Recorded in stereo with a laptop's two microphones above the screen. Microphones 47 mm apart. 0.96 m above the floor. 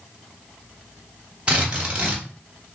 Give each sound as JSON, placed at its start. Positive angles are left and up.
{"t": 1.5, "sound": "a drill", "side_deg": -25, "distance_m": 1.3}